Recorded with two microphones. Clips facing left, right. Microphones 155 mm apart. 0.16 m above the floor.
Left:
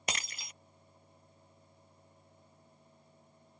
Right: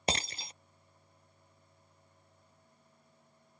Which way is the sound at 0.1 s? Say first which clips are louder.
Right 6 dB; 30° right (ahead or behind).